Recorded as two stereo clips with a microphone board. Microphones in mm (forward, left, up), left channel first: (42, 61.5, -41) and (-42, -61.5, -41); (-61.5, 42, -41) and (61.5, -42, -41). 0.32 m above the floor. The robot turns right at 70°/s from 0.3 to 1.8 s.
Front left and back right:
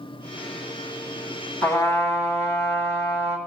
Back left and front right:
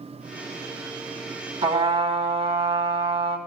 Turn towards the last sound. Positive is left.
turn(degrees=-5)